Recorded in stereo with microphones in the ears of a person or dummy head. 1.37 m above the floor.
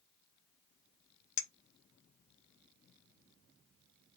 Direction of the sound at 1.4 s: 60° left (ahead or behind).